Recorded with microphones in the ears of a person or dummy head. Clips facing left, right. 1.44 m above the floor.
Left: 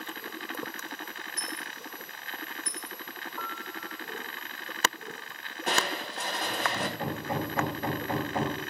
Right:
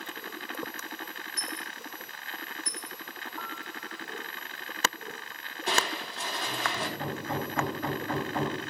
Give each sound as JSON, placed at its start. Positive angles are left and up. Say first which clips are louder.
{"t": 1.4, "sound": "a dropped coin", "louder": "right 1 dB", "side_deg": 15, "distance_m": 5.0}
{"t": 3.4, "sound": "a piano", "louder": "left 2 dB", "side_deg": 55, "distance_m": 1.9}
{"t": 5.7, "sound": "crushing", "louder": "even", "side_deg": 45, "distance_m": 2.5}
{"t": 7.0, "sound": "hammering", "louder": "left 1 dB", "side_deg": 10, "distance_m": 5.5}